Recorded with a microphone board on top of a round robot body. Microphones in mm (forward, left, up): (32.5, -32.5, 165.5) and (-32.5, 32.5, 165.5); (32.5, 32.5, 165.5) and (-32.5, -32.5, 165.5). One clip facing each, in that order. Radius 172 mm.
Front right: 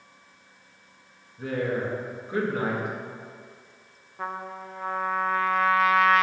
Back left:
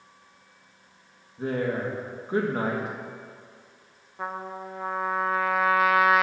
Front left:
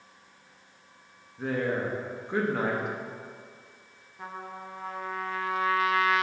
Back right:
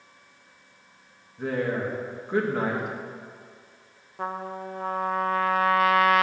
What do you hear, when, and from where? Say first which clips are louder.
1.4 s a woman speaking: even, back right 2 dB; 140° left, 1.3 m
4.2 s a trumpet: even, back right 8 dB; 140° right, 0.6 m